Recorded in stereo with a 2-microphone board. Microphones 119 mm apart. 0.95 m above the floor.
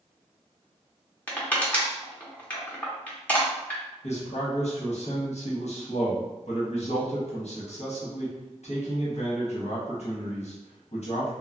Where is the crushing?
15° left (ahead or behind), 0.8 m.